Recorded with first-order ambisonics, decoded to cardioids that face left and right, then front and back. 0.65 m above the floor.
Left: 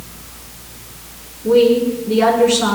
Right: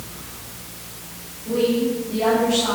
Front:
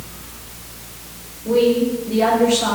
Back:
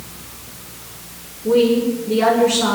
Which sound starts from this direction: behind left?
A woman speaking, at 1.4 s.